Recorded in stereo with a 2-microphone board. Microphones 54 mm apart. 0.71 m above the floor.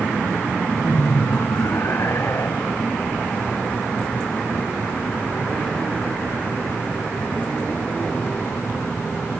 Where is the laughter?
60° left (ahead or behind); by 2.8 s 55° left (ahead or behind).